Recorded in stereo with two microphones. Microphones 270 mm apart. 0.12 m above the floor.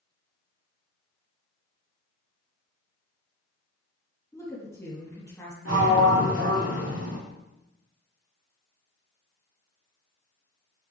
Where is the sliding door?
60° right (ahead or behind), 5 m.